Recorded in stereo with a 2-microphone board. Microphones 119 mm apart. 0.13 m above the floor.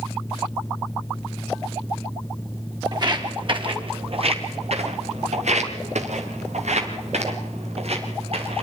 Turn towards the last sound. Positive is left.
turn(degrees=-60)  # may be behind; listen again after turning